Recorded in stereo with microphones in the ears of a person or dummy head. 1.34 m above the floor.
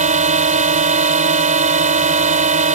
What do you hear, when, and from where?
0.0 s a drone: 35° right (ahead or behind)